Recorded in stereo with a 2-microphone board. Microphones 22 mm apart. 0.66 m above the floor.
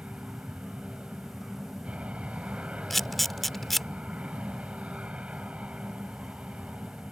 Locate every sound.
0.0 s an aircraft: 70° right (ahead or behind)
2.9 s a camera shutter: 5° left (ahead or behind)